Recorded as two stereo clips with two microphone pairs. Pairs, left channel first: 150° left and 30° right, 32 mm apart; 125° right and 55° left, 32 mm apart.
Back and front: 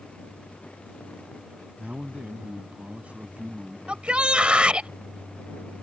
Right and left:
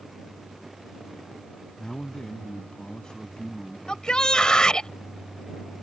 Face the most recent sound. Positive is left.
turn(degrees=-70)